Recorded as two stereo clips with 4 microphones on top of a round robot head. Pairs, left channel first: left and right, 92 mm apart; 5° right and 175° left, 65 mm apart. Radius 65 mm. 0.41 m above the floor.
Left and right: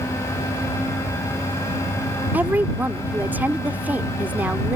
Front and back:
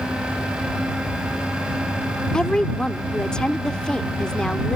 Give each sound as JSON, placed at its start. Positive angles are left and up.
{"t": 2.3, "sound": "a woman speaking", "azimuth_deg": -60}